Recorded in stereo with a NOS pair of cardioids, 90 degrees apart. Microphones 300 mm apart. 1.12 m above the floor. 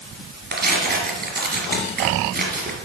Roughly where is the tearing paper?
Ahead right.